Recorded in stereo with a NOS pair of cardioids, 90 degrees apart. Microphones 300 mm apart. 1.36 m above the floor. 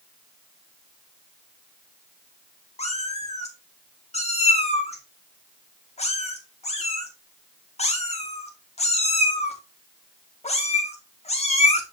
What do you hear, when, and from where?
2.8 s a cat meowing: 20° left, 1.9 m